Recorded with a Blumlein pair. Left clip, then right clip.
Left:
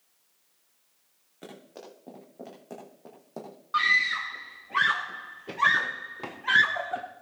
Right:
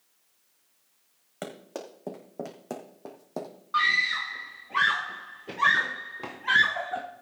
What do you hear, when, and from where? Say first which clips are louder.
1.4 s running footsteps: right 7 dB; 40° right, 4.5 m; by 3.5 s 15° right, 2.5 m
3.7 s a scream: even; 5° left, 0.8 m